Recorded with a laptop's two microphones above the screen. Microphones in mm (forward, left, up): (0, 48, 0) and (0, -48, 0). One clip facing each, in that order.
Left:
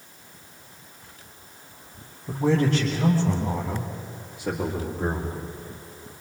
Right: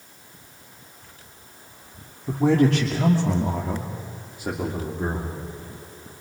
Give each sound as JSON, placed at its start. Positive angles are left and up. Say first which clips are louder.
{"t": 2.3, "sound": "a man speaking", "louder": "right 3 dB", "side_deg": -75, "distance_m": 3.0}